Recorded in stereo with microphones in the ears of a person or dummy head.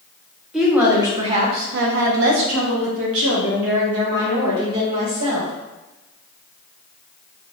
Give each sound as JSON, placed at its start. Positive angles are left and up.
{"t": 0.5, "sound": "a woman speaking", "side_deg": -5, "distance_m": 0.9}